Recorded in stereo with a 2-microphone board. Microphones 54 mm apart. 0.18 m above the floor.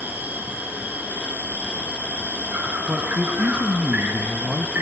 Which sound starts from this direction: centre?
A man speaking, at 2.9 s.